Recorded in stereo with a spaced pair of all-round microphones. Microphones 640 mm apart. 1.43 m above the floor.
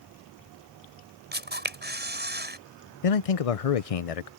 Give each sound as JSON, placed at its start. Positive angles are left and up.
{"t": 1.3, "sound": "a camera shutter", "side_deg": -15}
{"t": 3.0, "sound": "a man speaking", "side_deg": 60}